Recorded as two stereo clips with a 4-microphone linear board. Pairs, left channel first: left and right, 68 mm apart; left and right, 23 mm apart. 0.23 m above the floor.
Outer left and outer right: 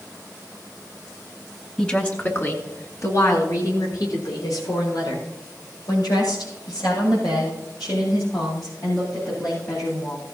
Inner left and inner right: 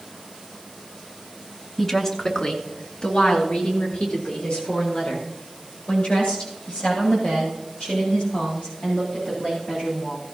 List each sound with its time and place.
1.8 s a woman speaking: 15° left (ahead or behind), 2.5 m; by 10.2 s 85° left, 13.5 m